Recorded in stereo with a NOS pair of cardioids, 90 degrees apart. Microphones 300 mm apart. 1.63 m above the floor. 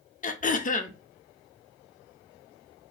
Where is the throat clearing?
30° left, 0.6 m.